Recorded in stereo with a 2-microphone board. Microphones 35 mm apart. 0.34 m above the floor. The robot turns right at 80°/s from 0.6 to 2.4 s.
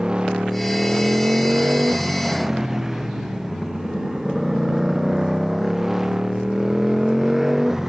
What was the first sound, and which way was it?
A motorcycle, 160° right.